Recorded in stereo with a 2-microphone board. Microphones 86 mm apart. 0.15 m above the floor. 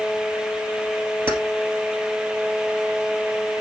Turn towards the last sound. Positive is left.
turn(degrees=-25)  # may be behind; listen again after turning